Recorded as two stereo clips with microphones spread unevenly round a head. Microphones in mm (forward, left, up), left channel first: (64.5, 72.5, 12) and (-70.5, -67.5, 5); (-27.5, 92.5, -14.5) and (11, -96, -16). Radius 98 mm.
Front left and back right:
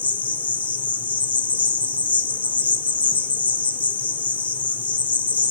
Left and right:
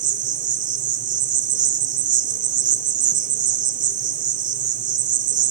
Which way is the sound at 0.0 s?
35° right.